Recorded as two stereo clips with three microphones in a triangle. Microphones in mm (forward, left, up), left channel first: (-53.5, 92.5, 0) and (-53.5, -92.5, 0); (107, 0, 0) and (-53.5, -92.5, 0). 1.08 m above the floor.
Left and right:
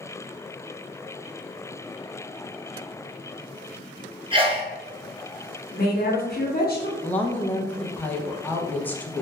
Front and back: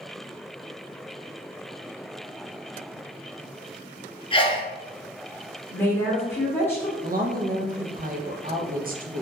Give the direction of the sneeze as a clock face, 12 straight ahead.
1 o'clock.